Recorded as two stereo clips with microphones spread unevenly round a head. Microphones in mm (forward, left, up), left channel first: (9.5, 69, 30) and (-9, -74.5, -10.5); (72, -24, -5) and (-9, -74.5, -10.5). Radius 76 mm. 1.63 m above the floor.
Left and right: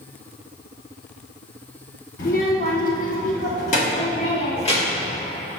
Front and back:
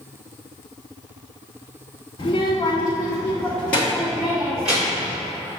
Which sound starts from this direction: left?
A child speaking, at 2.2 s.